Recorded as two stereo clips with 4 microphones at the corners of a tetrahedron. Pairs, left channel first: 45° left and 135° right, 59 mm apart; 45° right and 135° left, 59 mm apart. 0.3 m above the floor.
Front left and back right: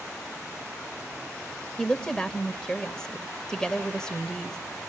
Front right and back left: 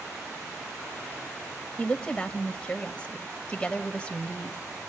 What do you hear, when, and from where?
1.8 s a woman speaking: 15° right, 1.4 m